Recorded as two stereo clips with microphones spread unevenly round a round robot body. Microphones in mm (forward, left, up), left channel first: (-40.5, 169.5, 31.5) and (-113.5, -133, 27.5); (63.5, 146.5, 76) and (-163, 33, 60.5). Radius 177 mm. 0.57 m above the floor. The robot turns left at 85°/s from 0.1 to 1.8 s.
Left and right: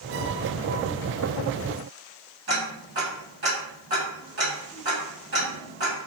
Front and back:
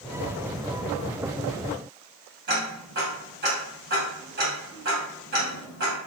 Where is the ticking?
145° right, 1.4 m.